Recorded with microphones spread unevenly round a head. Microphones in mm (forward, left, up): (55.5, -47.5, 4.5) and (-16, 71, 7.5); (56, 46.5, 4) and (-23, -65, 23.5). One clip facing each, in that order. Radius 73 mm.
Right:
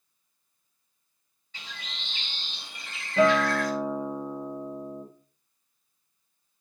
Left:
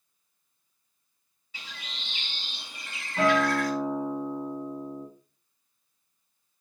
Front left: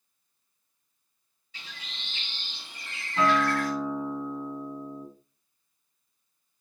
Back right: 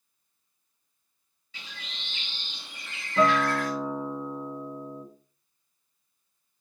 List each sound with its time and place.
1.5 s a bird: 155° right, 4 m
3.2 s a guitar: 90° right, 3.5 m